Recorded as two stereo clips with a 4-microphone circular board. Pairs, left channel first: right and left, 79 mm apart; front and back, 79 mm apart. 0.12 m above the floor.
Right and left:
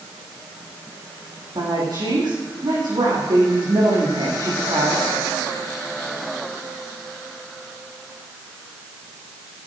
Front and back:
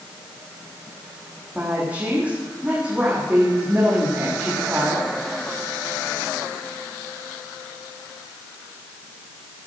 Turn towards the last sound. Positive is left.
turn(degrees=105)